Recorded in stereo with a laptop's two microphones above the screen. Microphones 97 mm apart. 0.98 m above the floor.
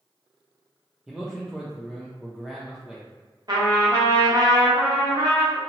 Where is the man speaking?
5° right (ahead or behind), 0.7 m.